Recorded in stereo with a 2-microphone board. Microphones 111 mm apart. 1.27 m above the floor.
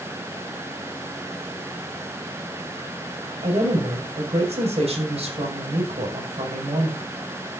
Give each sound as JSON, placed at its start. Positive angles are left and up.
{"t": 3.4, "sound": "a woman speaking", "side_deg": -65, "distance_m": 6.5}